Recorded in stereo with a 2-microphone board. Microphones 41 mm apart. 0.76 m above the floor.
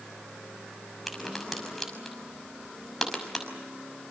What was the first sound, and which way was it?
A crack, 5° left (ahead or behind).